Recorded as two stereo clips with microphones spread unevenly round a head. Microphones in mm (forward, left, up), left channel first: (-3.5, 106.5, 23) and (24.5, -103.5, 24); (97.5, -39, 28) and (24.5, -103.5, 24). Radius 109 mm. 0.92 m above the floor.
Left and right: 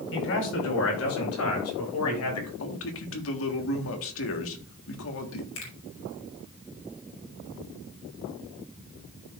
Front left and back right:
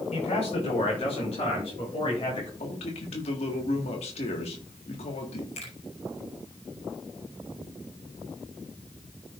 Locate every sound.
0.1 s a man speaking: 75° left, 4 m; by 2.5 s 100° left, 6 m
2.6 s a man speaking: 75° left, 1.6 m
5.5 s a finger snap: 70° left, 4.5 m